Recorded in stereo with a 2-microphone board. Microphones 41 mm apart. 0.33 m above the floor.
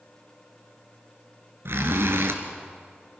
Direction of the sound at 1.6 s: 70° right (ahead or behind).